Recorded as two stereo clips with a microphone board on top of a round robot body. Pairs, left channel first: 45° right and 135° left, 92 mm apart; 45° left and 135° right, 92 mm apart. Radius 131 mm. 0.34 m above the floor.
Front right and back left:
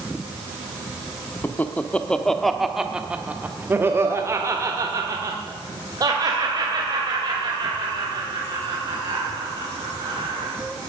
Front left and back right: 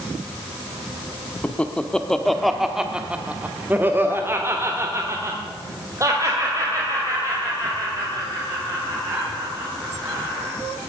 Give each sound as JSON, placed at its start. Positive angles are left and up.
{"t": 1.4, "sound": "laughter", "azimuth_deg": -10, "distance_m": 1.3}